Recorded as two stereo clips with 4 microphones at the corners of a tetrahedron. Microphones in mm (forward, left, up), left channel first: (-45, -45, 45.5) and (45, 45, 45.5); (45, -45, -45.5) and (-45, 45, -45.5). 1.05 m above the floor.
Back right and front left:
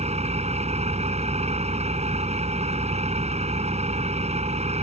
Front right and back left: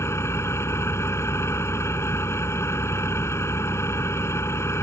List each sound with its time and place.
0.0 s an engine running: 25° left